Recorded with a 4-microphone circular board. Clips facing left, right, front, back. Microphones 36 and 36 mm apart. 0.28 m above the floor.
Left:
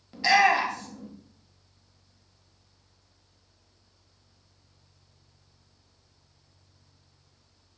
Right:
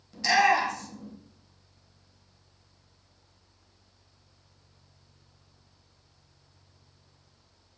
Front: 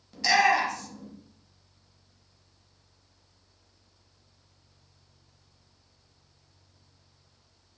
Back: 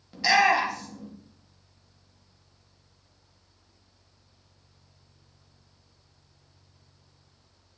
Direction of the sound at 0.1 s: 120° left.